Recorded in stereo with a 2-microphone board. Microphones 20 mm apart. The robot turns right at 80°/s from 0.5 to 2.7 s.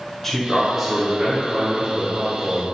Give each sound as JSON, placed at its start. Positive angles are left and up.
{"t": 0.2, "sound": "a man speaking", "azimuth_deg": 170, "distance_m": 1.8}